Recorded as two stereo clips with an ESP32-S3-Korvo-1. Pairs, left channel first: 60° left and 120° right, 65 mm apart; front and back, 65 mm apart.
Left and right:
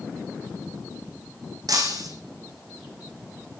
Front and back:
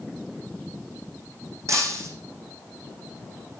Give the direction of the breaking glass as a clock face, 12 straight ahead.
5 o'clock.